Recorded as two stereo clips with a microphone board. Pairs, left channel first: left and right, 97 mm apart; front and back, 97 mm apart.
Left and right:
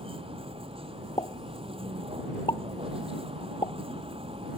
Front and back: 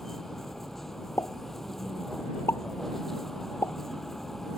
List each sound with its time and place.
0.0 s a vehicle: 85° right
1.2 s a pop: 60° left